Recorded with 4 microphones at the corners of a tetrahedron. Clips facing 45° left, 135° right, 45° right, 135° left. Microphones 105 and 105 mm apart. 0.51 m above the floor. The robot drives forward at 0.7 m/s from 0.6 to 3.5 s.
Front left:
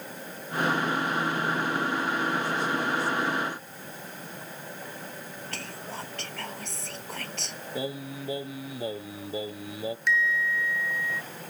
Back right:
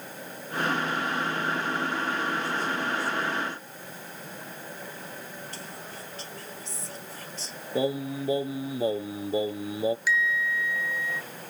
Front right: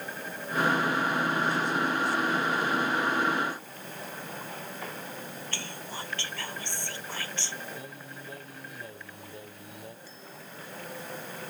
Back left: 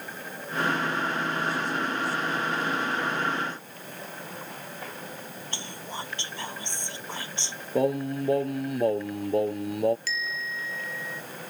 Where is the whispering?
65° left.